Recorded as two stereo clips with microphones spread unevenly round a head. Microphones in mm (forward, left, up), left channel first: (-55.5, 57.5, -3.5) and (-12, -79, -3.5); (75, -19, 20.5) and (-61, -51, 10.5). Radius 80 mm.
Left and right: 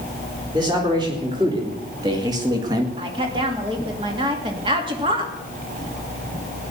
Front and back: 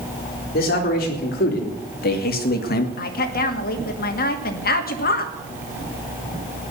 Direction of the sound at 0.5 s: 5° right.